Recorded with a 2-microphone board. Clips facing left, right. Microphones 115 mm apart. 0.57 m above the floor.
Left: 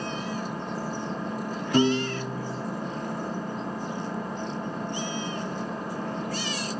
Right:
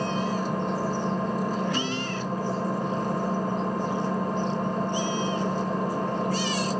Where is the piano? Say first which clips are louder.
Left 6 dB; 45° left (ahead or behind), 0.7 m.